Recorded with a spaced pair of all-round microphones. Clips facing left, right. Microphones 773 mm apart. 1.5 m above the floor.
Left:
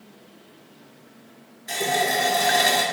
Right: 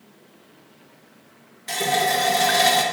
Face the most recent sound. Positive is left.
turn(degrees=-40)  # may be behind; listen again after turning